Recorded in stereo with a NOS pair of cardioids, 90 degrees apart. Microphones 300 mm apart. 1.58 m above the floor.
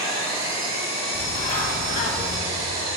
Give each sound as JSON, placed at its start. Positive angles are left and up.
{"t": 0.0, "sound": "an engine running", "azimuth_deg": -60, "distance_m": 2.0}
{"t": 1.1, "sound": "a bird", "azimuth_deg": 30, "distance_m": 1.7}